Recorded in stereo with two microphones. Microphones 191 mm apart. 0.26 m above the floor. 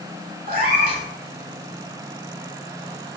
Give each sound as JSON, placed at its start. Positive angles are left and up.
{"t": 0.5, "sound": "a cat meowing", "side_deg": -45, "distance_m": 0.7}